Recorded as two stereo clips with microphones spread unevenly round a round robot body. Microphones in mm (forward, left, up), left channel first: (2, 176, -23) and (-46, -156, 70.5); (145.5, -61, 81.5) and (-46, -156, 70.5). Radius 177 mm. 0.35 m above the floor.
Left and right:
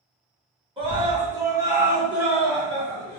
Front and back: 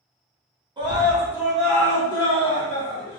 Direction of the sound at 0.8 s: 175° left.